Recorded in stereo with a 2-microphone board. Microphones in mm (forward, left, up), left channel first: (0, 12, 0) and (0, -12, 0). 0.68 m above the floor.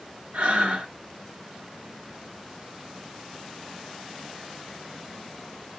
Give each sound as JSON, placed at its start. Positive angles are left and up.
{"t": 0.3, "sound": "breathing", "side_deg": -55, "distance_m": 1.9}